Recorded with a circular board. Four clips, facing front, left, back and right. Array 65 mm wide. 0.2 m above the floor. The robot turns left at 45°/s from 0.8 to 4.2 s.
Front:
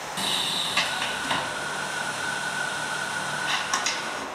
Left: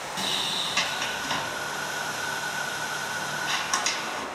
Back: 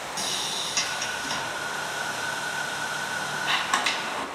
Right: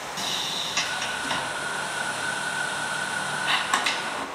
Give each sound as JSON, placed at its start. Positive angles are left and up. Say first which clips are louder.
{"t": 0.2, "sound": "a sliding door", "louder": "left 2 dB, front 6 dB", "azimuth_deg": 10, "distance_m": 0.9}